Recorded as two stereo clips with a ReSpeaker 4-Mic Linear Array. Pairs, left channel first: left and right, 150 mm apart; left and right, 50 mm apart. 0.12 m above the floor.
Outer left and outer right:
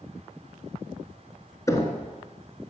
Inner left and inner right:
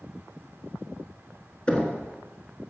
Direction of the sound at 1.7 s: 20° left (ahead or behind).